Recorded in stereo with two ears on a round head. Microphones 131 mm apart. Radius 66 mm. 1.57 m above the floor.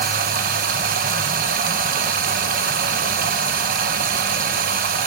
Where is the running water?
65° right (ahead or behind), 1.1 m.